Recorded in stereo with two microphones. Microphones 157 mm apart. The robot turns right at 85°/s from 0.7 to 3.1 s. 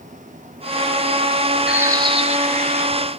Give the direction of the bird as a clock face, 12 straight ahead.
6 o'clock.